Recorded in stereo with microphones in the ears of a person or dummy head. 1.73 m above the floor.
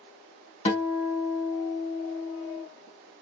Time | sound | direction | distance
0.7 | a guitar | 40° left (ahead or behind) | 1.4 m